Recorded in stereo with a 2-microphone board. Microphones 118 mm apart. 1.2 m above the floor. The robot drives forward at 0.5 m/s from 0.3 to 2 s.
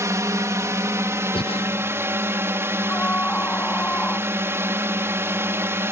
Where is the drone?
25° right (ahead or behind); by 5.9 s 20° right (ahead or behind).